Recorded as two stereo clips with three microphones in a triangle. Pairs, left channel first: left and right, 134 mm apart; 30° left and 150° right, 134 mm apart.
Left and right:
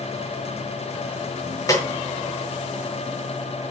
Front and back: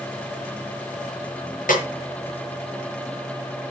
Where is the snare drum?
25° left, 5 m.